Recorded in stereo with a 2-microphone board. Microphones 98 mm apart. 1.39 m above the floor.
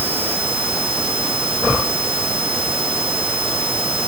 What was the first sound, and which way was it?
Only background noise.